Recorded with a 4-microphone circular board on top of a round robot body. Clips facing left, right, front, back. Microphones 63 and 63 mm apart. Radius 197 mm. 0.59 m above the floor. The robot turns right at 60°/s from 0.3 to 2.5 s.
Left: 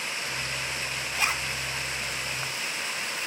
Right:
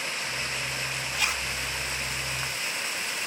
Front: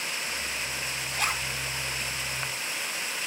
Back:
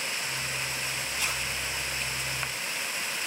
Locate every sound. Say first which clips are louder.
1.2 s a zipper: left 2 dB, front 5 dB; 30° left, 1.1 m; by 1.5 s 50° left, 1.1 m